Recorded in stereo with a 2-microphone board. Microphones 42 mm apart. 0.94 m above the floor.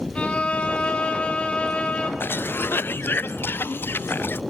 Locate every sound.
0.1 s a violin: 25° left (ahead or behind), 2.5 m
2.2 s a cough: 65° left (ahead or behind), 0.5 m